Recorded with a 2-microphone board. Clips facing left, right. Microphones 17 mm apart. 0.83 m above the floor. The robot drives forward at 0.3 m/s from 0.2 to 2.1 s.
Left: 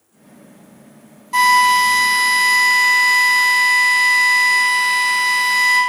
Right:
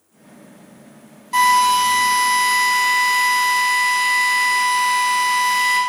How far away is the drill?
About 1.9 m.